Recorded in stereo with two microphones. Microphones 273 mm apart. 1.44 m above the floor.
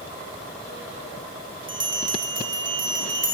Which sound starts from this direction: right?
A bell, at 1.7 s.